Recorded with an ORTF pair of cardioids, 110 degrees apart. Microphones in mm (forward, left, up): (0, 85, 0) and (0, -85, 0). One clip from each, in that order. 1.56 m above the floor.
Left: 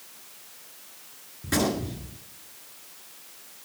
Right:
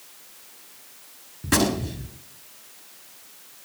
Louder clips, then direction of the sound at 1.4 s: Right 4 dB; 40° right.